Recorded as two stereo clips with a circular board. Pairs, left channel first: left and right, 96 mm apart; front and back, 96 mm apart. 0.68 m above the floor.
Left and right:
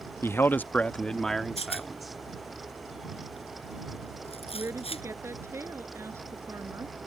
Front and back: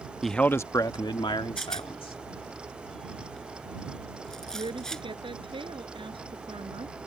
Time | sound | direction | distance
0.2 | a man speaking | 90° left | ?
1.6 | a rattle | 85° left | ?
4.5 | a woman speaking | 155° right | ?